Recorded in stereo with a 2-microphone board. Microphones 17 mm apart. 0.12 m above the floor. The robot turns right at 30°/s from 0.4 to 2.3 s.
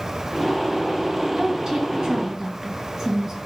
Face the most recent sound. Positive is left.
turn(degrees=-30)  # may be behind; listen again after turning